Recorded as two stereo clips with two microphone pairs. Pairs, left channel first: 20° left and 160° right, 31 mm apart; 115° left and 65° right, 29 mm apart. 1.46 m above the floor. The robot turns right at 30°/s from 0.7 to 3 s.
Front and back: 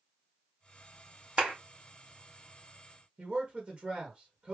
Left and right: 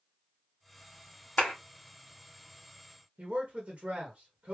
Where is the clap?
140° left, 1.7 m; by 1.5 s 145° left, 1.7 m.